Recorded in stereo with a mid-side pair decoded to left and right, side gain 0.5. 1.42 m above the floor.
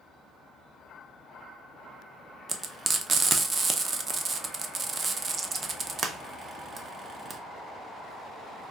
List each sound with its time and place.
2.5 s frying: 35° right, 0.6 m